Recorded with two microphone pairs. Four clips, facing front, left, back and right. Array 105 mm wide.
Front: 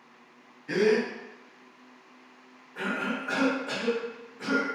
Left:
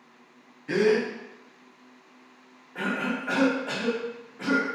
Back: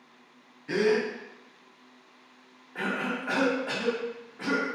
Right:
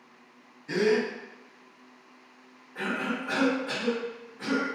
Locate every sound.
0.7 s a gasp: 115° left, 0.9 m
2.8 s a cough: 150° left, 1.7 m